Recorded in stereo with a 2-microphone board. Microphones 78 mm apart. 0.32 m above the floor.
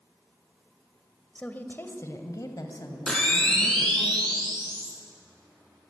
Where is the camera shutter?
10° left (ahead or behind), 6.5 m.